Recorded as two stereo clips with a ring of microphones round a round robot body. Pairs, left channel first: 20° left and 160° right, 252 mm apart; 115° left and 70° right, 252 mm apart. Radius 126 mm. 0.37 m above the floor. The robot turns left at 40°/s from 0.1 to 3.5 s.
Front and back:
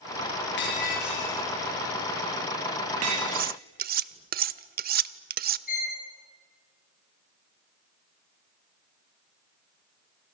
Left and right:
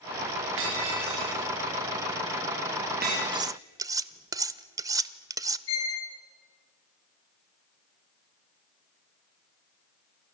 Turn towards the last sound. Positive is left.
turn(degrees=80)